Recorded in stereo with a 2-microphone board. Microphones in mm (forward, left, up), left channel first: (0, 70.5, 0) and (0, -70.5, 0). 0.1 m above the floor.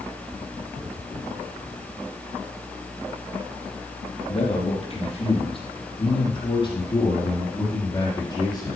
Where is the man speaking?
50° left (ahead or behind), 4 m; by 8.8 s 30° left (ahead or behind), 5.5 m.